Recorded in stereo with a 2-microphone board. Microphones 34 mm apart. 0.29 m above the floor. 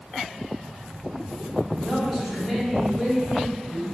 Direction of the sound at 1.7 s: 5° right (ahead or behind).